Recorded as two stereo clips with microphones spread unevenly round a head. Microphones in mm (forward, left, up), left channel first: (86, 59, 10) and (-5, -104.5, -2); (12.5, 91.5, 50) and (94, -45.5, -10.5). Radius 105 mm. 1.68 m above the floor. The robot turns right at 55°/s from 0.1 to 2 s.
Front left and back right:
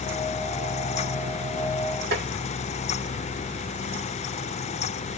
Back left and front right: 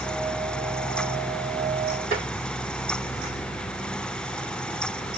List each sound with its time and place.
2.1 s tapping: 125° right, 1.3 m